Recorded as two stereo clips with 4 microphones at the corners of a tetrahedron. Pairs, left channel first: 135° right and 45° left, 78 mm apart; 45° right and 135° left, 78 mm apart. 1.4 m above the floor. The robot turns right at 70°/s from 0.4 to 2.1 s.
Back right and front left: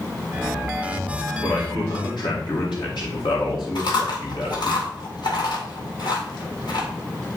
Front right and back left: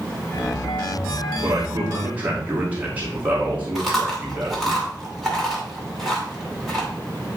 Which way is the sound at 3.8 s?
135° right.